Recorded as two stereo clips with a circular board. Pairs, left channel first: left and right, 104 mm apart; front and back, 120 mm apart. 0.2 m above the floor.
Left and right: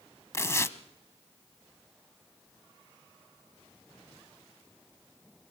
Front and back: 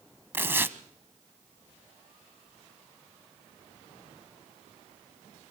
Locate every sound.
0.3 s tearing paper: 125° left, 0.8 m